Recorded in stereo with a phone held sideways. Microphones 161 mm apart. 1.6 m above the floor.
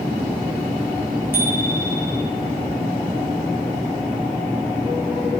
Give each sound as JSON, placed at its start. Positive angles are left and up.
{"t": 1.3, "sound": "a bicycle bell", "side_deg": -15, "distance_m": 4.0}